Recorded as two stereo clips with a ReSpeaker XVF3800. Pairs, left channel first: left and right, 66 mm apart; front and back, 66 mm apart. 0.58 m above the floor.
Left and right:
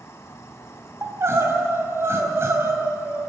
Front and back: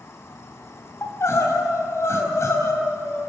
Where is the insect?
45° left, 1.3 m.